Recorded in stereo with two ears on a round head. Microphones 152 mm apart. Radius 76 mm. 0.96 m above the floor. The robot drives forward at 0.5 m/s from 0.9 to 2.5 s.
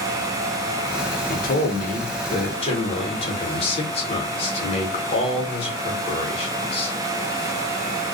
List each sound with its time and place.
1.3 s a man speaking: 60° left (ahead or behind), 0.7 m; by 7.0 s 35° left (ahead or behind), 1.0 m